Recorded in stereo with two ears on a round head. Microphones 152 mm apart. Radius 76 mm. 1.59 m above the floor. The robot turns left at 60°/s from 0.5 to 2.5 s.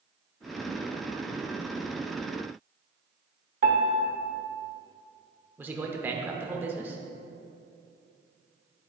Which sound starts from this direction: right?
A piano, at 3.6 s.